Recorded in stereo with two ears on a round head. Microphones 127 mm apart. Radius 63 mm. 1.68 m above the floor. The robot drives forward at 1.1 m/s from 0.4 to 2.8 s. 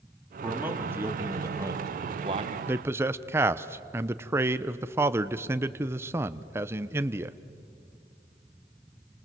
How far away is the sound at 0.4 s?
About 3 m.